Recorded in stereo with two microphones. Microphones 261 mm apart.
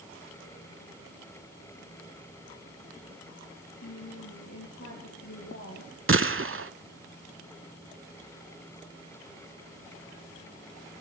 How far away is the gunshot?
About 0.5 m.